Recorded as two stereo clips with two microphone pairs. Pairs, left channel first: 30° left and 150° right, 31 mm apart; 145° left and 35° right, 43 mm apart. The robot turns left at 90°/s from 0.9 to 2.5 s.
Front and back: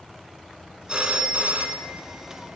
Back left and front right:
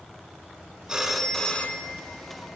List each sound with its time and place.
0.9 s a phone ringing: 100° right, 1.4 m; by 2.6 s 115° left, 1.4 m